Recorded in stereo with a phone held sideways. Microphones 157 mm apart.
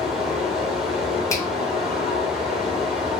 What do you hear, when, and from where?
0.0 s running water: 5° right (ahead or behind), 1.1 m
1.3 s a finger snap: 20° left (ahead or behind), 1.0 m